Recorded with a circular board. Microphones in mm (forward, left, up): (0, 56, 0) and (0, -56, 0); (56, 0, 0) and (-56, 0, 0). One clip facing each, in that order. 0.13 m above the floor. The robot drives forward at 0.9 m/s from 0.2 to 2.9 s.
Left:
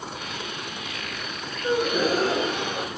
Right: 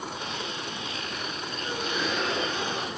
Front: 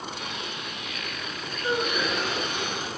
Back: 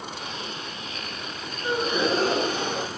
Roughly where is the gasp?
Left.